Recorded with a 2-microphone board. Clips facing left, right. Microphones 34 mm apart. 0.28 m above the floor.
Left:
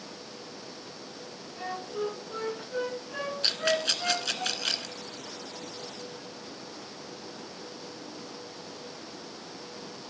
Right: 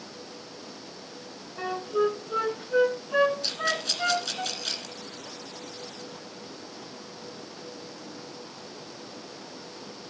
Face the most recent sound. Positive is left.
turn(degrees=45)  # may be behind; listen again after turning